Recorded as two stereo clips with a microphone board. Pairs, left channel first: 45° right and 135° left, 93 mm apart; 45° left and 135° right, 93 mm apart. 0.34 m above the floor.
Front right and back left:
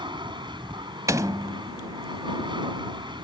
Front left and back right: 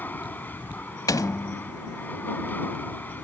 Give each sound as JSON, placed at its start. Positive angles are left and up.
{"t": 0.0, "sound": "an aircraft", "azimuth_deg": 115}
{"t": 1.1, "sound": "a door slam", "azimuth_deg": 85}